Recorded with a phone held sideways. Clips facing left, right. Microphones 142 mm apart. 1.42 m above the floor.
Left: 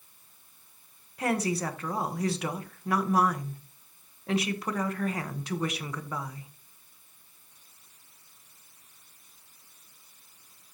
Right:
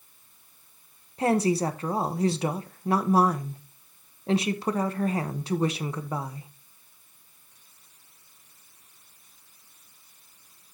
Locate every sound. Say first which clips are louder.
1.2 s a woman speaking: right 5 dB; 30° right (ahead or behind), 1.1 m